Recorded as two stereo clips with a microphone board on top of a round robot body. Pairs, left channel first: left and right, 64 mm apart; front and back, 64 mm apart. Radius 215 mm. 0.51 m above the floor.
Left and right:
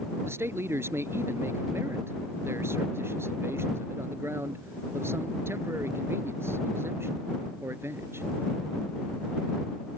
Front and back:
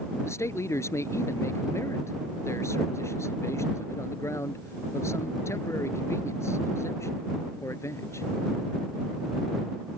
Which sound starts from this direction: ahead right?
A man speaking, at 0.2 s.